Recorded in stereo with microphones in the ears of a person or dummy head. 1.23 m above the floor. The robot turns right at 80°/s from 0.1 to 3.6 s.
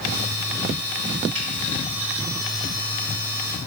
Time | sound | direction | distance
1.4 | a finger snap | 30° right (ahead or behind) | 1.1 m